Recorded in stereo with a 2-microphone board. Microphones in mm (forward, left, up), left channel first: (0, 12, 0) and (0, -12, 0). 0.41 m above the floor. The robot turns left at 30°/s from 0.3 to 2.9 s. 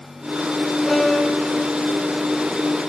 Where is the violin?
15° left (ahead or behind), 5.5 m; by 1.7 s 10° right (ahead or behind), 5.5 m.